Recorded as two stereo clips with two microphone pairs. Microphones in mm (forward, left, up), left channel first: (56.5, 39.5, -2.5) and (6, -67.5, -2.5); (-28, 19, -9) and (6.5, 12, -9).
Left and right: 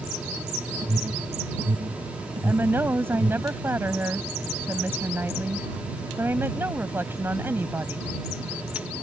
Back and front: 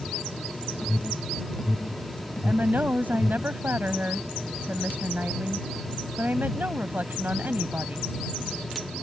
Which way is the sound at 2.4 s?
45° right.